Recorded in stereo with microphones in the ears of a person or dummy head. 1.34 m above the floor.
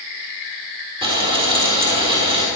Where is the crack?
No crack in this recording.